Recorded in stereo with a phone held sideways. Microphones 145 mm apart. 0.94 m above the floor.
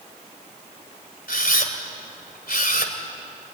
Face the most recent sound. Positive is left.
turn(degrees=85)